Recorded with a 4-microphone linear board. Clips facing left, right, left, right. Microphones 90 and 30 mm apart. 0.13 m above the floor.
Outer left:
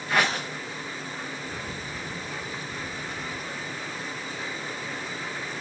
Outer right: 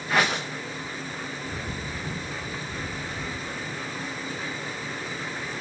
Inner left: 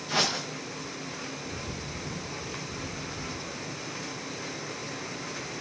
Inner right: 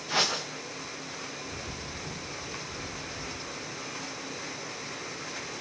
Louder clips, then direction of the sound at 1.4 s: Outer right 2 dB, inner left 1 dB; 30° right (ahead or behind).